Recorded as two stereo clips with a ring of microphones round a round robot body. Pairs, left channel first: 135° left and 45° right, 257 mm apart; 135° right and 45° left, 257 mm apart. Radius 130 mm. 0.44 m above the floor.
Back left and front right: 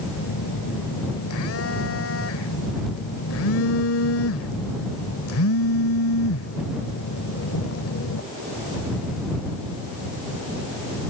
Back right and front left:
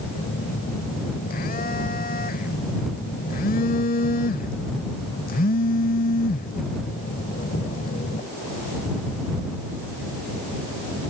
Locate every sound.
0.1 s a phone buzzing: 170° left